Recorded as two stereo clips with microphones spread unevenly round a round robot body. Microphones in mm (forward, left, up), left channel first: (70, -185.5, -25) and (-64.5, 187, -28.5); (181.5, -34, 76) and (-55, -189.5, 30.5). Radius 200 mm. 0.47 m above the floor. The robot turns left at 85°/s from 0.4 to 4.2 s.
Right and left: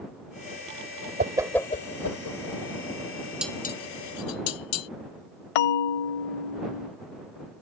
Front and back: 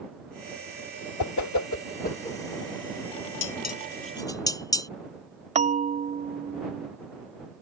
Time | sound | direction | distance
1.2 | a whoosh | 45° left | ?
3.4 | dishes clattering | 20° left | ?
5.5 | a bell | 75° right | ?